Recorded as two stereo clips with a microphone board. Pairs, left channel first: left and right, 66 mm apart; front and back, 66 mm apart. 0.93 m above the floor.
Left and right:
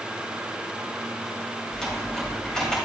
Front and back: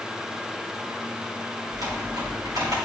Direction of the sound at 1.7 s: 170° left.